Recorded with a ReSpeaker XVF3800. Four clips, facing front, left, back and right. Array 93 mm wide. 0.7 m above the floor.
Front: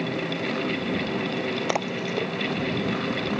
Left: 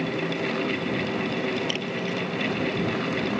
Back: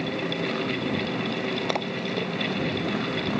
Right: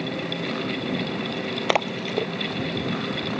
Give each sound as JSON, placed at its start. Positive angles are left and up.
{"t": 1.7, "sound": "a splash", "azimuth_deg": -80}